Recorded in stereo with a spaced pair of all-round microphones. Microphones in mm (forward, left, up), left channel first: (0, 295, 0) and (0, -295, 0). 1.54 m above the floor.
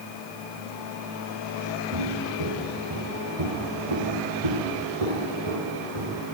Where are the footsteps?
55° right (ahead or behind), 4 m; by 6.2 s 70° right (ahead or behind), 4.5 m.